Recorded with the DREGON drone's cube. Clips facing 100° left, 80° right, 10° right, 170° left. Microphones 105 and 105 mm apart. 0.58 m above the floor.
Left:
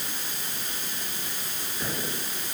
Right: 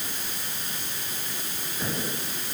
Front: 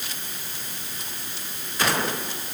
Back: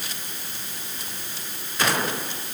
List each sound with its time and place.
Only background noise.